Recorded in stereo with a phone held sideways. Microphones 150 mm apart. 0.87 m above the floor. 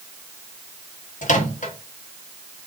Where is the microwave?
60° left (ahead or behind), 0.9 m.